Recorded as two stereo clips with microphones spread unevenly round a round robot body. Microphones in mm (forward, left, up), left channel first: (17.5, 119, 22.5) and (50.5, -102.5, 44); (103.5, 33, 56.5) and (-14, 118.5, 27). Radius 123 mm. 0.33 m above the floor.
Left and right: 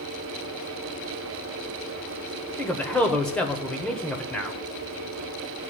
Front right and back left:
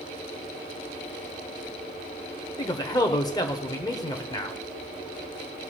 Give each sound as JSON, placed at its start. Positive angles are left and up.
{"t": 2.6, "sound": "a man speaking", "azimuth_deg": 25, "distance_m": 1.1}